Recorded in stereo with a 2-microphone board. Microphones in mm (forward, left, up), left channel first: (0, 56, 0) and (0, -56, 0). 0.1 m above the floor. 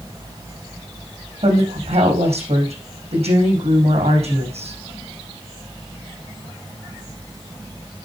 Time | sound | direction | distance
1.4 | a woman speaking | 70° right (ahead or behind) | 4 m